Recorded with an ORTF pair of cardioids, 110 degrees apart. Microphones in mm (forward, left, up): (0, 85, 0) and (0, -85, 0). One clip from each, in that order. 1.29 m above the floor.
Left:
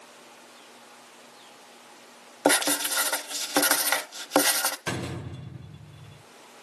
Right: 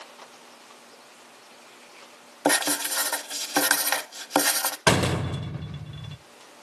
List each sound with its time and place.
2.5 s writing: 5° left, 1.2 m
4.9 s a door slam: 55° right, 0.6 m